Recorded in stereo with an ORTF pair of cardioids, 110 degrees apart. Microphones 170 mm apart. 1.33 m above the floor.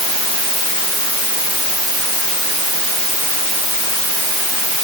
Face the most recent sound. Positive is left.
No sound to turn to.